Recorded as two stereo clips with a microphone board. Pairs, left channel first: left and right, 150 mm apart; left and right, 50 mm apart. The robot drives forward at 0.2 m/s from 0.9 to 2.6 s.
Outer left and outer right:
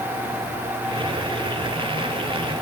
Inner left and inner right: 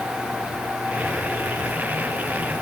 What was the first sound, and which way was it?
Only background noise.